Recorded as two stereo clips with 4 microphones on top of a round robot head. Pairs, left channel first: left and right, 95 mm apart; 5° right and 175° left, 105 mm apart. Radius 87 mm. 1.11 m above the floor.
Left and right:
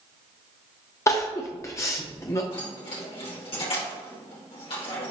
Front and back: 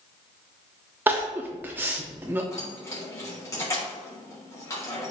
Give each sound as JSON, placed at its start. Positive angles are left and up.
{"t": 1.1, "sound": "crying", "azimuth_deg": 120, "distance_m": 0.6}
{"t": 2.5, "sound": "keys jangling", "azimuth_deg": 55, "distance_m": 3.0}